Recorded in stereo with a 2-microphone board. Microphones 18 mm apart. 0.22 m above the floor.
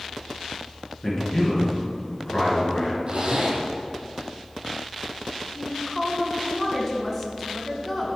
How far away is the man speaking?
About 3 m.